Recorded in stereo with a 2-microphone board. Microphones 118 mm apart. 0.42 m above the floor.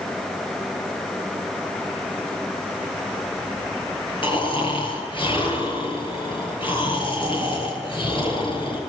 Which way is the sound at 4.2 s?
45° left (ahead or behind).